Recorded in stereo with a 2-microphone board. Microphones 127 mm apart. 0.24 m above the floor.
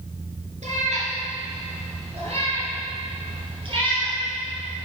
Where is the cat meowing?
65° right (ahead or behind), 2.0 m; by 4.8 s 40° right (ahead or behind), 4 m.